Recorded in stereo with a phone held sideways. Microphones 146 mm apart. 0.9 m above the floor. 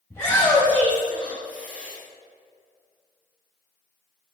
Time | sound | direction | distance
0.1 | a shout | 20° left (ahead or behind) | 5 m